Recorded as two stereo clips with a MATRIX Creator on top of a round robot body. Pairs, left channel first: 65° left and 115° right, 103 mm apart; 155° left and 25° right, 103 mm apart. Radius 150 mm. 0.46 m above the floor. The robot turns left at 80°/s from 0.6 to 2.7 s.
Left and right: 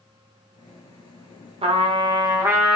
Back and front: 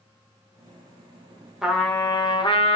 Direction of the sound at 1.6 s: 110° right.